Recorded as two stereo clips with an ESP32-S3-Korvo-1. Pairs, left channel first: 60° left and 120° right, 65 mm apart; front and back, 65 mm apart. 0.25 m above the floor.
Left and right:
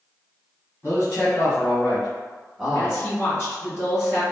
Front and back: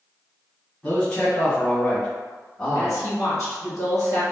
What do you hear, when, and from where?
0.8 s a man speaking: 65° left, 1.6 m; by 3.0 s 65° right, 1.4 m
2.8 s a woman speaking: 10° left, 1.9 m